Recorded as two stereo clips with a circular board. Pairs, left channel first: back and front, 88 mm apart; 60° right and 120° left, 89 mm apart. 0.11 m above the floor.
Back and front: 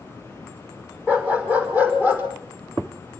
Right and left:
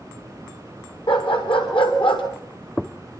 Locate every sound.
1.1 s a dog barking: 70° right, 6.5 m; by 2.2 s 65° right, 7 m